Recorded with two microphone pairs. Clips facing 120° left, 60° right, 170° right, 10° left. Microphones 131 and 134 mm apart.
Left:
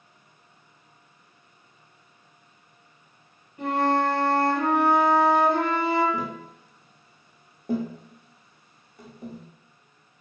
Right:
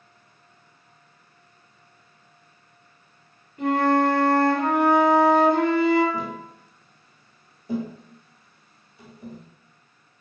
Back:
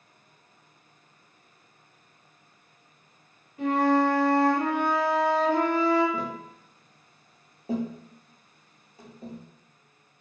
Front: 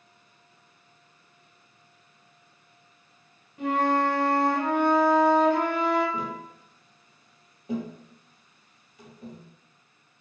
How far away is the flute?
About 1.8 m.